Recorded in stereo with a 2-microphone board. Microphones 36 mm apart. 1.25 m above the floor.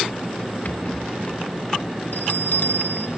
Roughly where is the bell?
Left.